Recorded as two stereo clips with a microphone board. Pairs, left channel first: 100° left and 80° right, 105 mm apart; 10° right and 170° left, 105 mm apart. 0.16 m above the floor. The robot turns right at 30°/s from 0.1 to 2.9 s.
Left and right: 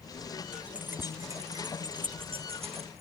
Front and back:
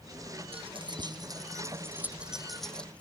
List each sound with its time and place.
0.5 s keys jangling: 160° right; by 3.0 s 90° right